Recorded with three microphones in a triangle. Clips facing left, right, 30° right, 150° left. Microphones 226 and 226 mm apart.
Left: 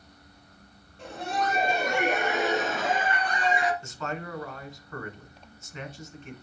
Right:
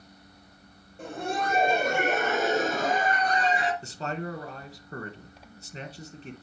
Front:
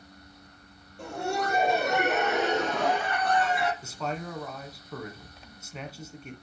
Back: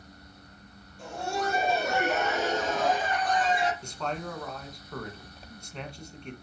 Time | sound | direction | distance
1.0 | laughter | 50° right | 4 m
3.8 | a man speaking | 110° right | 1.5 m